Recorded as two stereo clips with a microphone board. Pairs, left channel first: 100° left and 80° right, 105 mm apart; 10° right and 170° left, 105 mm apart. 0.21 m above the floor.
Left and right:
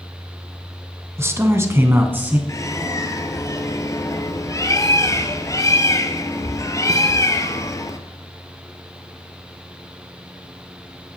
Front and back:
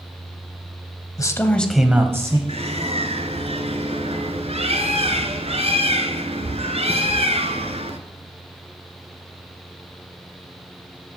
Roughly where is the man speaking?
Ahead right.